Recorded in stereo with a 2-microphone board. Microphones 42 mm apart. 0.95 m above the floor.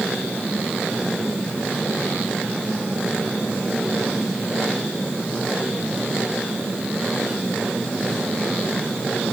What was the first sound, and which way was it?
Only background noise.